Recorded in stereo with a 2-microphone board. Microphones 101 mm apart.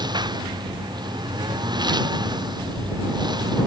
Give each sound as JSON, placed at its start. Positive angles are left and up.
{"t": 0.0, "sound": "a lawn mower", "side_deg": -45}